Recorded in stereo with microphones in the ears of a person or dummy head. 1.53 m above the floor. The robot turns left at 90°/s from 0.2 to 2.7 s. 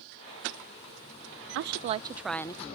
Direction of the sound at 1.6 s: 115° right.